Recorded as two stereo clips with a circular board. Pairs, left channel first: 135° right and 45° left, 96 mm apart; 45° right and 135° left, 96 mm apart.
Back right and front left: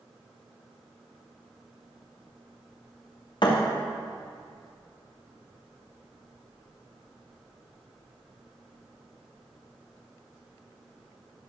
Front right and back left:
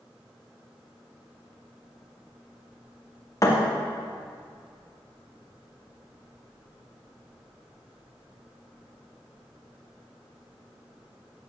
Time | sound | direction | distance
3.4 | a thud | 105° right | 3 m